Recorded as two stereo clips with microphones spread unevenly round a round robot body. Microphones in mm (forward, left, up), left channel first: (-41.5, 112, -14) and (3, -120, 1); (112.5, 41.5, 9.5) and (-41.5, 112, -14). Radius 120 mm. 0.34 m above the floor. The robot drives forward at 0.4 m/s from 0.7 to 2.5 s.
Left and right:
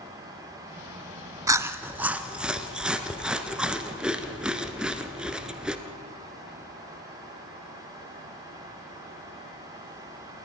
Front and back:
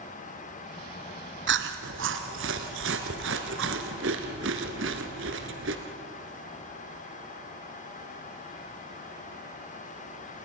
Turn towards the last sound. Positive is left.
turn(degrees=-165)